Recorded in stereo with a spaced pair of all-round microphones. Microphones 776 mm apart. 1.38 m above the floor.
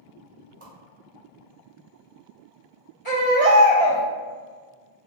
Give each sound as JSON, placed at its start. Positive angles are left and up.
{"t": 0.6, "sound": "a whoosh", "side_deg": -20, "distance_m": 0.9}
{"t": 3.0, "sound": "a baby crying", "side_deg": 50, "distance_m": 1.9}